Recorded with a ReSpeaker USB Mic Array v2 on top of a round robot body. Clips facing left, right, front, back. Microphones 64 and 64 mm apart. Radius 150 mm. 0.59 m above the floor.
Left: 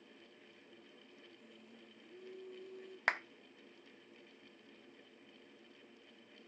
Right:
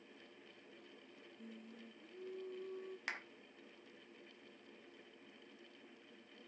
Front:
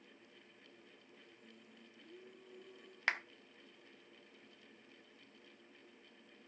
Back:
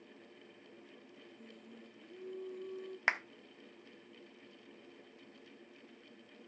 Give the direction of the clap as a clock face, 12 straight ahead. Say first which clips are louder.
Left 11 dB, back 3 dB; 8 o'clock.